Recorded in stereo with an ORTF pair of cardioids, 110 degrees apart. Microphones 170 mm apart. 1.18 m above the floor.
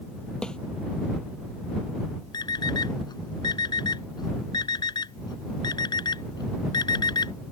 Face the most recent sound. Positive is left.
turn(degrees=25)